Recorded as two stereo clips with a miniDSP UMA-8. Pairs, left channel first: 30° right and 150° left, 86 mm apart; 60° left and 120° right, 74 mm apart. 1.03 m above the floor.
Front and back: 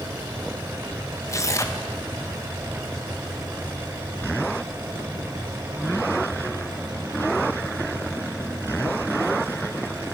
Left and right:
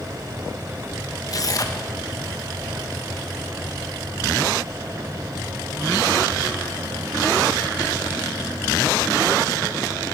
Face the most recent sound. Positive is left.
turn(degrees=25)